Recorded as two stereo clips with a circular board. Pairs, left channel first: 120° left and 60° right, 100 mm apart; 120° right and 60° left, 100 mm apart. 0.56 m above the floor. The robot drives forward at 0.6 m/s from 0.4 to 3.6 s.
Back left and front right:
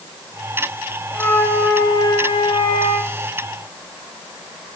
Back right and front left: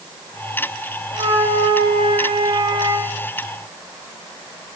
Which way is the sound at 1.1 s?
45° left.